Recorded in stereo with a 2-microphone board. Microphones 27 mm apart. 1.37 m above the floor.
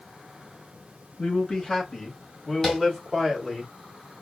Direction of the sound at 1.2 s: 35° left (ahead or behind).